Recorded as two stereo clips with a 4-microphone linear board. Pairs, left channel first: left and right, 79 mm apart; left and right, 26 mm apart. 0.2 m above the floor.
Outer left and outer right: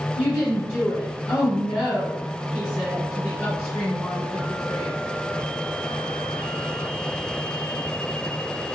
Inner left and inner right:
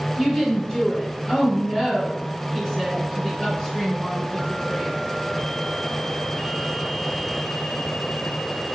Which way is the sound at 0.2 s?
25° left (ahead or behind).